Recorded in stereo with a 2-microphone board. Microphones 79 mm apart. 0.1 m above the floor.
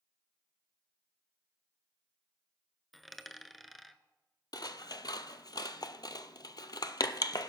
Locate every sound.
2.9 s a dropped coin: centre (ahead or behind), 0.5 m
4.5 s scissors: 60° left (ahead or behind), 0.5 m